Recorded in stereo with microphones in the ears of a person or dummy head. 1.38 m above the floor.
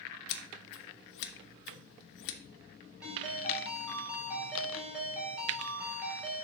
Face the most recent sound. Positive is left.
turn(degrees=-10)  # may be behind; listen again after turning